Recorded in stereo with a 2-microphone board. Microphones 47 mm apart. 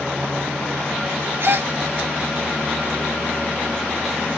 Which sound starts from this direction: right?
A gasp, at 1.4 s.